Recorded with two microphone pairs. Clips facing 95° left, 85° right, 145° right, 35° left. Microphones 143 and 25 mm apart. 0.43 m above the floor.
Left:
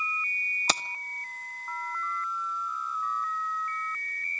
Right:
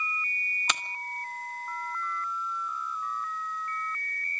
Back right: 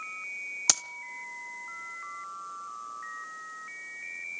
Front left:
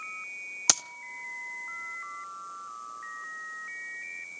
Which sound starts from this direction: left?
Keys jangling, at 0.7 s.